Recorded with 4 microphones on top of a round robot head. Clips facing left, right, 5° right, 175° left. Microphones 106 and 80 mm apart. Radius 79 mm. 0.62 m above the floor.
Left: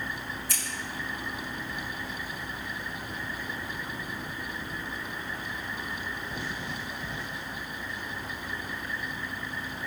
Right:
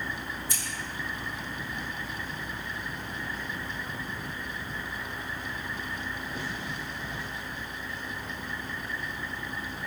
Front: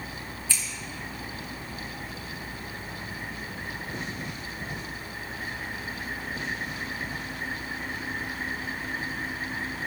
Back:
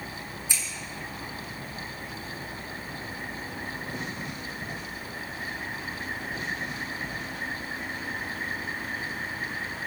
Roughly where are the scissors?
Left.